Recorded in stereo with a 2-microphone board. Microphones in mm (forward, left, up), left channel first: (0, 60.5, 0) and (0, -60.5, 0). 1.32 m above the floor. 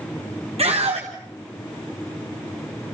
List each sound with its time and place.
0.6 s a scream: 60° right (ahead or behind), 1.6 m